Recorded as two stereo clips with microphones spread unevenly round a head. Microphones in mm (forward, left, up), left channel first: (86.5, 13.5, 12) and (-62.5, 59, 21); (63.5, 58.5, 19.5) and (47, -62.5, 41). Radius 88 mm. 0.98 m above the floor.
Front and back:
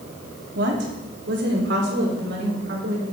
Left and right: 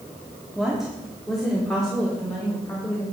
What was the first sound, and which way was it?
A woman speaking, 175° left.